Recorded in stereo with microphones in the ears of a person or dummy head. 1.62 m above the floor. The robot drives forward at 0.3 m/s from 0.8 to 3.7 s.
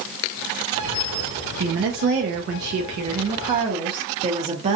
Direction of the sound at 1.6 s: 50° right (ahead or behind).